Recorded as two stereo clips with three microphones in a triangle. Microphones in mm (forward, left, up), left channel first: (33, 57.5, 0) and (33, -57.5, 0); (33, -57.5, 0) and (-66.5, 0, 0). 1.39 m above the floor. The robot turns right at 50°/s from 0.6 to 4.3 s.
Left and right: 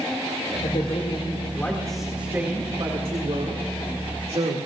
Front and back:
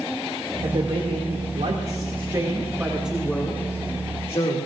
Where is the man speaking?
110° left, 2.5 m; by 4.6 s 65° right, 2.5 m.